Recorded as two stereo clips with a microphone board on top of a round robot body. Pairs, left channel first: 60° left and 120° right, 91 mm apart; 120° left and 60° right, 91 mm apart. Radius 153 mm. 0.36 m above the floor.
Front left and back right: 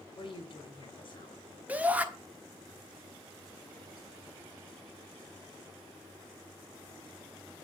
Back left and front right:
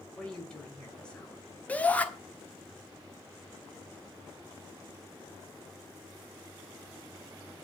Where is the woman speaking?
40° left, 1.9 m.